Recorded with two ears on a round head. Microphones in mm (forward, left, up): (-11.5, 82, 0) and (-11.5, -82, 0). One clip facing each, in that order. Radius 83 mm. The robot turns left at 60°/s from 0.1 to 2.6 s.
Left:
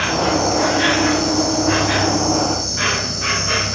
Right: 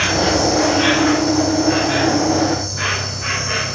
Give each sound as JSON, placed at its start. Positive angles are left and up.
{"t": 0.0, "sound": "an insect", "azimuth_deg": -155, "distance_m": 1.6}